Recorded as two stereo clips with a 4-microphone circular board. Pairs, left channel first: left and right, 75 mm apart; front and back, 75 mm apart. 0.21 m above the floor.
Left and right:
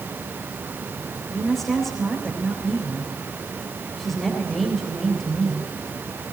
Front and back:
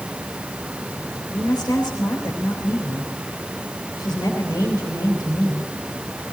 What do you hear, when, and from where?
1.3 s a woman speaking: 5° left, 4 m